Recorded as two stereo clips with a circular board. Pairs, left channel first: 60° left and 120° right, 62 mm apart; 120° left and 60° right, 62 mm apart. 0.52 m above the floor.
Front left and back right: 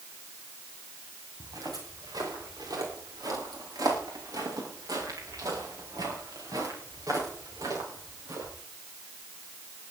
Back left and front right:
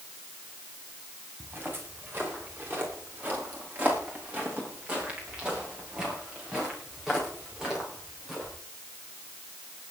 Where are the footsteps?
115° right, 9 m; by 8.5 s 145° right, 11 m.